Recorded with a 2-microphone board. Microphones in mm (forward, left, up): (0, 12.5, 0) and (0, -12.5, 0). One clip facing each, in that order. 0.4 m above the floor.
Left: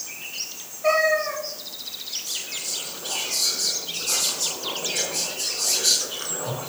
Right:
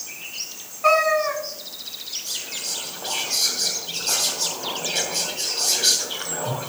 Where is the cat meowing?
55° right (ahead or behind), 1.8 m.